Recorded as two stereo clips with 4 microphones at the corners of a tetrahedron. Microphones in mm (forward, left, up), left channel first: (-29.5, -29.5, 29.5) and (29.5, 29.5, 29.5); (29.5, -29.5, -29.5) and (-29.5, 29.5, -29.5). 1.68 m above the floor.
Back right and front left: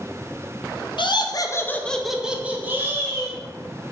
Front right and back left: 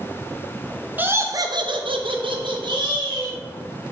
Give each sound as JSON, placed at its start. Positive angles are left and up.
{"t": 1.0, "sound": "laughter", "azimuth_deg": -155, "distance_m": 0.6}